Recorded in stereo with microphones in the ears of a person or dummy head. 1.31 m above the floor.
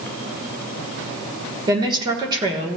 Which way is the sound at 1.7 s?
25° right (ahead or behind).